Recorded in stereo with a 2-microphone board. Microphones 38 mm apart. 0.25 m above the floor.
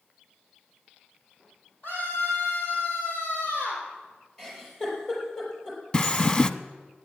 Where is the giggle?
20° left (ahead or behind), 5 m.